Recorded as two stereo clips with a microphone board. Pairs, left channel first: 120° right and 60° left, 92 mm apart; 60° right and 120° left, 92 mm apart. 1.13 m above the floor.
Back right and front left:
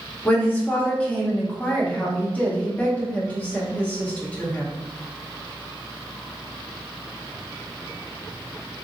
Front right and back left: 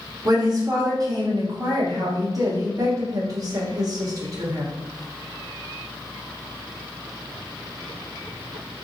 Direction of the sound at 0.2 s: 165° left.